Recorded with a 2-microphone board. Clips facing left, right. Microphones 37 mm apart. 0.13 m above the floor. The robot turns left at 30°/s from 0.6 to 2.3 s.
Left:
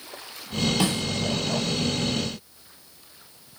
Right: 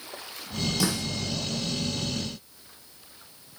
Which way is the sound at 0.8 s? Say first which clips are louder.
Left 3 dB; 40° left (ahead or behind).